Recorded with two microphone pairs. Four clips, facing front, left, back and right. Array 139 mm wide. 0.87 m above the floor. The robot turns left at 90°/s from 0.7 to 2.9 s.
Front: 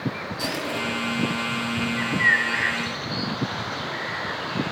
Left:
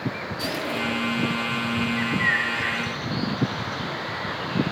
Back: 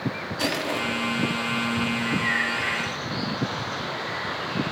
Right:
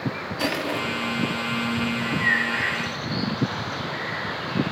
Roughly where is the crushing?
Behind right.